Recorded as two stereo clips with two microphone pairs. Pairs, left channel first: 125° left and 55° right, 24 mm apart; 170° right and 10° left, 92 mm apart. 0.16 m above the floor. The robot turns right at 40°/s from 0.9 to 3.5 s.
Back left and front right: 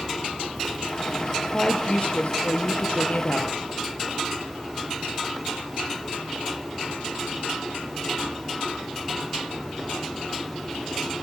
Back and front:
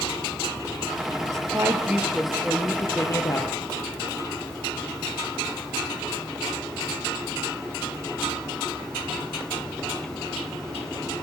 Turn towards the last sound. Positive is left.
turn(degrees=150)